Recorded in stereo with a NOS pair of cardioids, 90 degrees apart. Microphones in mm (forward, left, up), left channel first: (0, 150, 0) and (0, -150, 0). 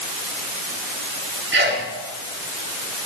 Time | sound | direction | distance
1.5 | a sneeze | 40° right | 7 m